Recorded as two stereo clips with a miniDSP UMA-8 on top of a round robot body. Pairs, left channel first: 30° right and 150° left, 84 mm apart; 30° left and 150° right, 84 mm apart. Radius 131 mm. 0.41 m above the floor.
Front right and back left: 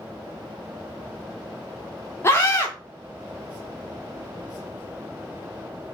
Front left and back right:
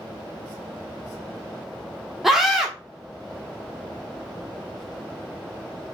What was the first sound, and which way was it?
A scream, 65° right.